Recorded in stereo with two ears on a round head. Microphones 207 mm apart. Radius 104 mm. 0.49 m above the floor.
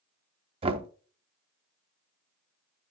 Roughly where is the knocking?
Right.